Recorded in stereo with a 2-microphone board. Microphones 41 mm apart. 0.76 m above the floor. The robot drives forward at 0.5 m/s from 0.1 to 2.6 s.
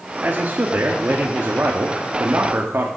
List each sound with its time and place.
0.2 s a man speaking: 45° right (ahead or behind), 1.5 m; by 2.9 s 55° right (ahead or behind), 1.3 m